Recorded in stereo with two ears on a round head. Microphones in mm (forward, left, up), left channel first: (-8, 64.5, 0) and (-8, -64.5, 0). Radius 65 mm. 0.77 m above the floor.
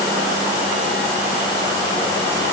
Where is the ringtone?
I don't hear a ringtone.